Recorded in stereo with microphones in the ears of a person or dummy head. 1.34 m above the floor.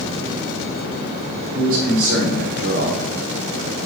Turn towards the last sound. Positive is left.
turn(degrees=-50)  # may be behind; listen again after turning